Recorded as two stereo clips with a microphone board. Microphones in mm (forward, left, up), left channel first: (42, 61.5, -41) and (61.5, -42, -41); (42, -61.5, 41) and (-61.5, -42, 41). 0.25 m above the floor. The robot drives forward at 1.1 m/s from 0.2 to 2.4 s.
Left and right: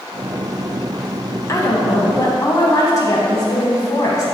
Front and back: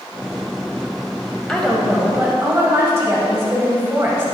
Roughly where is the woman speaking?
Ahead left.